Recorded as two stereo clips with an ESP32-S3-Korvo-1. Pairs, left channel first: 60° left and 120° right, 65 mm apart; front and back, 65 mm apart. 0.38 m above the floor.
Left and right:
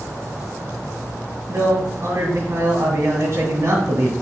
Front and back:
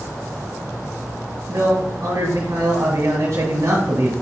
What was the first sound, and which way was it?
A man speaking, 160° right.